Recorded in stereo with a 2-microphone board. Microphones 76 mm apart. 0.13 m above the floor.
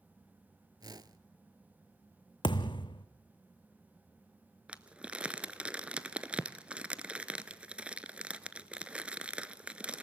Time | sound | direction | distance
0.8 | a whoosh | 60° right (ahead or behind) | 0.6 m
2.4 | a thud | 90° left | 1.0 m
4.7 | crumpling | 15° right (ahead or behind) | 0.6 m